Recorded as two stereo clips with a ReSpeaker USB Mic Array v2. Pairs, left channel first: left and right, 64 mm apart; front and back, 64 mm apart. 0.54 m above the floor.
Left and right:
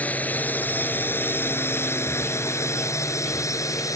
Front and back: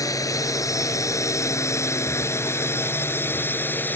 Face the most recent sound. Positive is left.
turn(degrees=60)